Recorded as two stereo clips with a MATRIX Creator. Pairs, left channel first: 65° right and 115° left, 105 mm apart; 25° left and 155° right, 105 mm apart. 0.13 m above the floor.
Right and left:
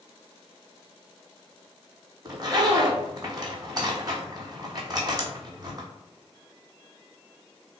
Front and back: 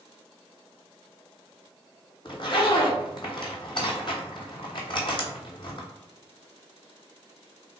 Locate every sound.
2.2 s a zipper: 65° left, 1.0 m